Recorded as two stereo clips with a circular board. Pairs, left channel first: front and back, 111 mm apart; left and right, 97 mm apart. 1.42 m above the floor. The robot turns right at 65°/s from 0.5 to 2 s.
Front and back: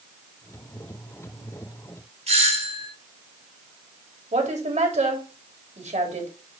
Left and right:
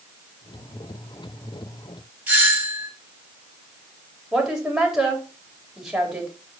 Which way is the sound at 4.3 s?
175° right.